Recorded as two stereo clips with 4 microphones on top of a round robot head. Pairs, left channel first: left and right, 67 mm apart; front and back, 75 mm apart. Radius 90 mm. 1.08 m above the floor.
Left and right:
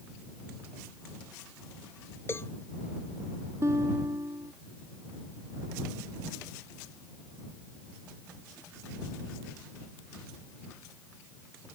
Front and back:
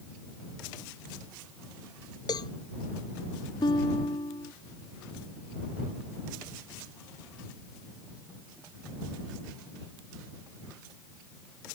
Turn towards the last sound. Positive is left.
turn(degrees=-35)